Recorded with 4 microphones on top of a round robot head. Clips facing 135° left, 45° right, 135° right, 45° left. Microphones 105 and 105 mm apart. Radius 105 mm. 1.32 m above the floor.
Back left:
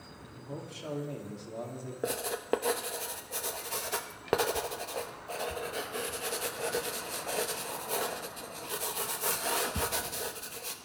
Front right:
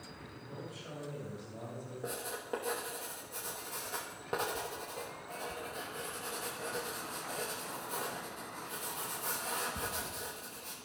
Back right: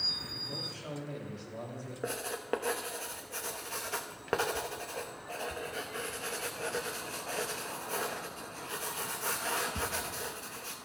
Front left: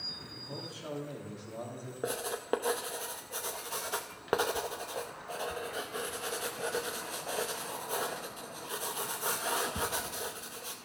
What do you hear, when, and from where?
0.4 s a man speaking: 120° left, 3 m
2.0 s writing: 115° left, 0.7 m